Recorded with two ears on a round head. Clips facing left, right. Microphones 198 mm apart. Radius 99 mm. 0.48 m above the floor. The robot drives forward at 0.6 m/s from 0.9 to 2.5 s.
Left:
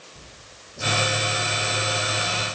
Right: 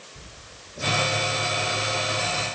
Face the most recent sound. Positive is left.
No sound to turn to.